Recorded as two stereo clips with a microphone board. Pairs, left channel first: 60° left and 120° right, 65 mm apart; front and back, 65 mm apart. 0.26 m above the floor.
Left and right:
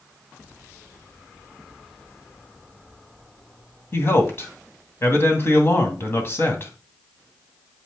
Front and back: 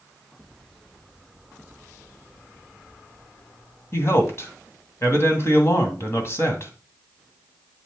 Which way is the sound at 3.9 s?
25° left.